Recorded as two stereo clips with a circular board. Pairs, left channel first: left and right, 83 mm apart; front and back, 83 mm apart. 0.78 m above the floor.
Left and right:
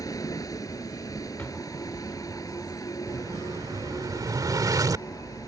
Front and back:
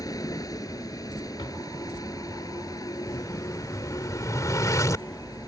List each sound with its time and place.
0.0 s a vehicle: 45° left
1.4 s a drawer: 20° left
3.1 s an explosion: 45° right